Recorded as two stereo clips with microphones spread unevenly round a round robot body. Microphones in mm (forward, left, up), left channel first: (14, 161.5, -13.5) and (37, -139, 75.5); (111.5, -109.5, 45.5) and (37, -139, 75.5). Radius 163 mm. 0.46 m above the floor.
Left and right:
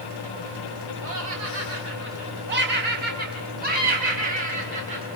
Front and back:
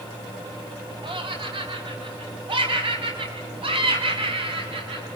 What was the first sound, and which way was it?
Laughter, 140° right.